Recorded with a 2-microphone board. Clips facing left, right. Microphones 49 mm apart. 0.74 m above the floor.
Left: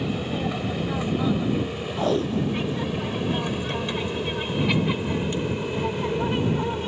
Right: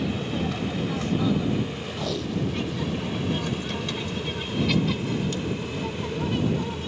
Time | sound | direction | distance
0.0 | an aircraft | 15° left (ahead or behind) | ?
2.0 | tape being pulled | 35° left (ahead or behind) | ?